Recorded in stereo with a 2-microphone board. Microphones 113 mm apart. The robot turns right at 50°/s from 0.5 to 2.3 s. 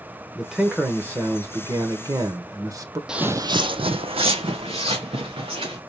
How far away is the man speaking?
About 0.9 m.